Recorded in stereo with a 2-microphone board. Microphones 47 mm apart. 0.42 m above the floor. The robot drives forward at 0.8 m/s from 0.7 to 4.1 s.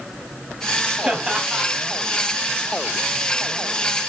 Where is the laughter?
20° right (ahead or behind), 2.5 m; by 1.7 s 15° right (ahead or behind), 3 m.